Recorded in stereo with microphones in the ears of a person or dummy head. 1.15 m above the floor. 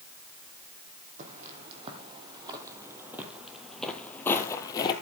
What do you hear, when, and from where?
1.2 s footsteps: 45° right (ahead or behind), 3 m; by 4.9 s 25° left (ahead or behind), 2 m